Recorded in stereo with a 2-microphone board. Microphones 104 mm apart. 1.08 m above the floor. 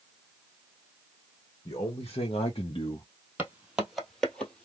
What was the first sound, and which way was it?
A man speaking, 55° left (ahead or behind).